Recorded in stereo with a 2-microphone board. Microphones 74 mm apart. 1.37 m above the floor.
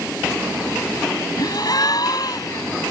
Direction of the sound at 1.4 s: 55° left (ahead or behind).